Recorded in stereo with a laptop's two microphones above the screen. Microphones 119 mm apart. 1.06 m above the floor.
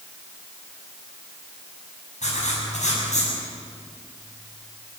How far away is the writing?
About 7.5 m.